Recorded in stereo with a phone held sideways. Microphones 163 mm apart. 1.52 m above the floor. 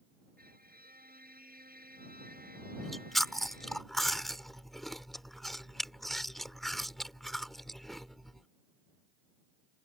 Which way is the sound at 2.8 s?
Centre (ahead or behind).